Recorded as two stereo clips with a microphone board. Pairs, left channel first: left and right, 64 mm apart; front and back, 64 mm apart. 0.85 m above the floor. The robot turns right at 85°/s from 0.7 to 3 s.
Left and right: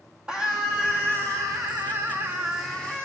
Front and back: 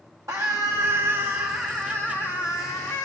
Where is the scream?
165° right, 1.3 m; by 3.1 s 30° left, 1.3 m.